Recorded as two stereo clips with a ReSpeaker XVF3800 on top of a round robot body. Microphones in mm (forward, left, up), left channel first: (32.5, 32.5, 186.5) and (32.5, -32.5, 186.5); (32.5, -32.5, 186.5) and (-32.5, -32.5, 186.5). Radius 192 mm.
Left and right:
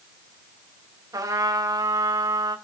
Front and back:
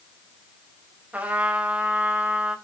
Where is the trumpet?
115° right, 3 m.